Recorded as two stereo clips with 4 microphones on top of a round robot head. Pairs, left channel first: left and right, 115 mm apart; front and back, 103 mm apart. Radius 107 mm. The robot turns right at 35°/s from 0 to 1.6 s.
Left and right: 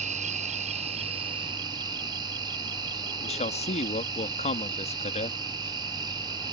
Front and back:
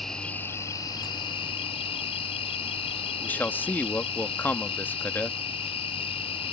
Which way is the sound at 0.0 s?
90° right.